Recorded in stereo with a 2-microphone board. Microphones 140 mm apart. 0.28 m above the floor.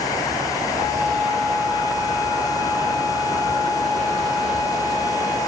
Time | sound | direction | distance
0.8 | a flute | 30° left (ahead or behind) | 5 m